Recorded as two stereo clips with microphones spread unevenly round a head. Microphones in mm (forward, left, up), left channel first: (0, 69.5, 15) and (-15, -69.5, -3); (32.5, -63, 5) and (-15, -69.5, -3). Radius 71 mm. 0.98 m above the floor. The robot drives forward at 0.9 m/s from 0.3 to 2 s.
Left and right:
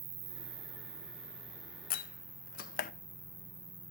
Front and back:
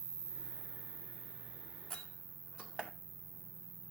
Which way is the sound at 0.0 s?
140° right.